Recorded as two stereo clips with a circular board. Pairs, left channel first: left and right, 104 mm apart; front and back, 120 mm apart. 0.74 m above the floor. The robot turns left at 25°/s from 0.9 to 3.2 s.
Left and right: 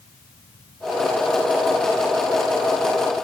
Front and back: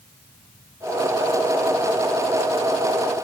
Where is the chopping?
I don't hear chopping.